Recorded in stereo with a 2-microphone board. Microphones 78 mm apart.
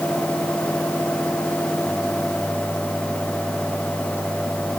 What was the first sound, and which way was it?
Only background noise.